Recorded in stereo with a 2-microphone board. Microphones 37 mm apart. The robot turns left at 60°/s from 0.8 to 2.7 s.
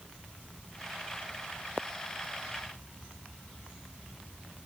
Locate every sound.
Only background noise.